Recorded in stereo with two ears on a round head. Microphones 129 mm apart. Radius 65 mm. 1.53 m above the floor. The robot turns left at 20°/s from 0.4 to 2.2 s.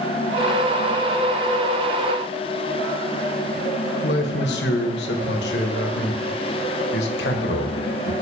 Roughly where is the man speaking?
Left.